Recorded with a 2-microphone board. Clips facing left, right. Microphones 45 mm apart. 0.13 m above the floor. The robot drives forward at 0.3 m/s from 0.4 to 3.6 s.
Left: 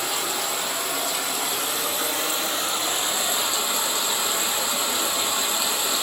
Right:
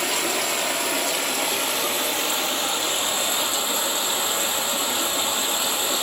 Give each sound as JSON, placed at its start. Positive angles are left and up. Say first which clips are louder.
{"t": 0.0, "sound": "running water", "louder": "right 3 dB", "side_deg": -65, "distance_m": 0.8}